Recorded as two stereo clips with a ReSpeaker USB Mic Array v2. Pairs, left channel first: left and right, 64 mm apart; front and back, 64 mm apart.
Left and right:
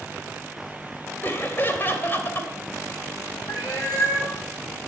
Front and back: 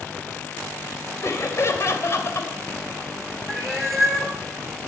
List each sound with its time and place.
1.2 s laughter: 40° left, 2.5 m
3.5 s a cat meowing: 90° left, 4.5 m